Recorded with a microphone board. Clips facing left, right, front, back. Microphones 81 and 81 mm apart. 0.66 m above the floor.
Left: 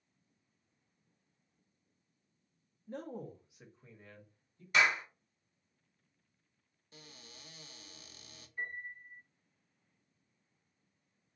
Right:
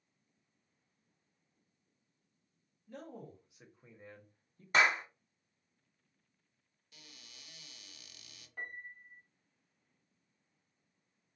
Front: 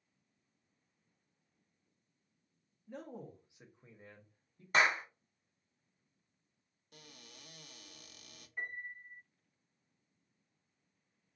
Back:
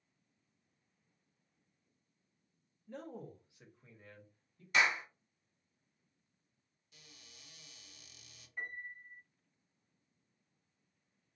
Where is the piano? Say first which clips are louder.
Left 3 dB, front 1 dB; 90° right, 1.1 m.